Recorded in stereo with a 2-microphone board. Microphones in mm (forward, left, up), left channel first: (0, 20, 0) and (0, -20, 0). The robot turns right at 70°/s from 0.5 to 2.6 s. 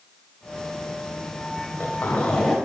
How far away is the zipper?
About 4.5 m.